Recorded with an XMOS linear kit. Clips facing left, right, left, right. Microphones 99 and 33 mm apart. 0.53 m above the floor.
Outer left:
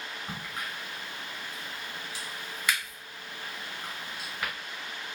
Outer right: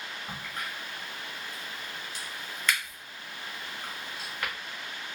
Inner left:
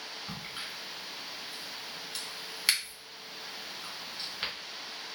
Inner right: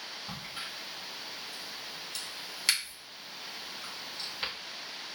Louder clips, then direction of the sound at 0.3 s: Even, even; 10° left (ahead or behind).